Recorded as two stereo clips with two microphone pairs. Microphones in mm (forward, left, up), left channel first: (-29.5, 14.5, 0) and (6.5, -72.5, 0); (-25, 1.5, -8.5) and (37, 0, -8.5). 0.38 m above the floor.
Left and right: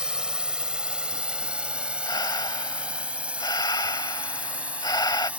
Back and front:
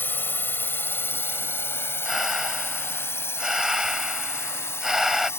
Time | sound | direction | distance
0.0 | a drone | 145° right | ?
2.0 | breathing | 85° left | ?